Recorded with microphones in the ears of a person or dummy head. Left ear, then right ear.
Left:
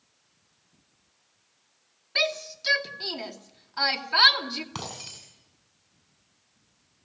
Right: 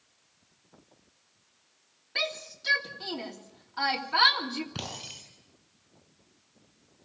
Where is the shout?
20° left (ahead or behind), 2.5 m.